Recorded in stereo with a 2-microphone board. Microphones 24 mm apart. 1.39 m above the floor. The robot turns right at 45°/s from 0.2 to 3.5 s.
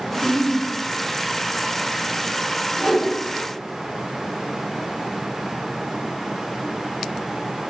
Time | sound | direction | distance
0.1 | a giggle | 5° left (ahead or behind) | 1.1 m
2.8 | a whoosh | centre (ahead or behind) | 1.6 m